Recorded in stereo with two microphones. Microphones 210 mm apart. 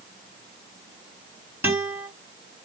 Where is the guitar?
10° right (ahead or behind), 3 m.